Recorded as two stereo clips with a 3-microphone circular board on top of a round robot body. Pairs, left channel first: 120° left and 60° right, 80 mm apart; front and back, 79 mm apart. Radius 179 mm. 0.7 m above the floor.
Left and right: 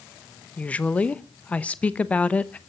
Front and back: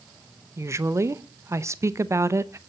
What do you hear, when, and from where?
0.6 s a woman speaking: straight behind, 1.0 m